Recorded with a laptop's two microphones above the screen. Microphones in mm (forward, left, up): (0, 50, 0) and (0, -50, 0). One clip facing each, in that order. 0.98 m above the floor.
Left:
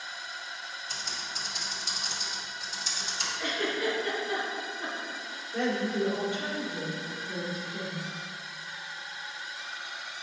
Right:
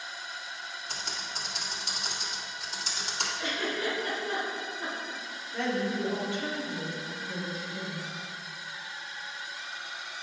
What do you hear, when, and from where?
0.9 s typing on a keyboard: 70° right (ahead or behind), 1.8 m
3.4 s a giggle: 25° right (ahead or behind), 3 m
5.5 s a woman speaking: 15° left (ahead or behind), 2.5 m